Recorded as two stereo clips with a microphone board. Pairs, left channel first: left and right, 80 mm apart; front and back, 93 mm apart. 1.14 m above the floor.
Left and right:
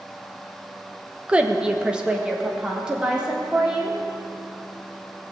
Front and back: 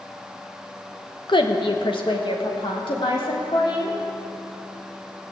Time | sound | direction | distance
1.3 | a woman speaking | 20° right | 1.1 m